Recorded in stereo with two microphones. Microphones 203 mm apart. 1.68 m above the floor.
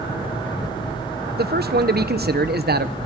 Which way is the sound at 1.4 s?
50° right (ahead or behind).